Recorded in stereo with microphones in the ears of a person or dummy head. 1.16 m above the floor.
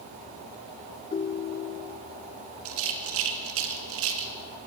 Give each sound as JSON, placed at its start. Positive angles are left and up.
{"t": 1.1, "sound": "a ringtone", "side_deg": 30, "distance_m": 0.6}
{"t": 2.6, "sound": "a rattle", "side_deg": -60, "distance_m": 1.9}